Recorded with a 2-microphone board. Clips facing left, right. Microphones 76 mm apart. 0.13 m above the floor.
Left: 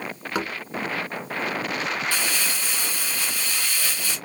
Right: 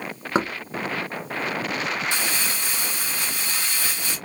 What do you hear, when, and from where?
0.3 s knocking: 30° right (ahead or behind), 0.9 m
2.1 s crumpling: 20° right (ahead or behind), 1.3 m